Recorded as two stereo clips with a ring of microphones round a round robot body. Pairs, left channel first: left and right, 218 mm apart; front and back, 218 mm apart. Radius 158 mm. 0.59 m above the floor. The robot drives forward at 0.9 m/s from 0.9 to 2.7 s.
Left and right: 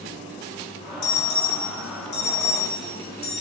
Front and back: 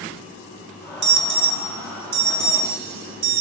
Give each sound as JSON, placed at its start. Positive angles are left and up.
{"t": 1.0, "sound": "an alarm", "azimuth_deg": 140, "distance_m": 1.5}